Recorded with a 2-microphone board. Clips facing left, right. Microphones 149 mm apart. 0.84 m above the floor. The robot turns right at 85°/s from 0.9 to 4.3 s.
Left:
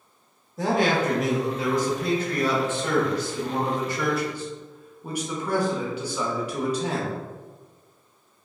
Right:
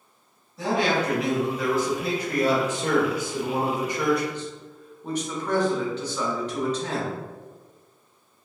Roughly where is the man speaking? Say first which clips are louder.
Left 1 dB; left.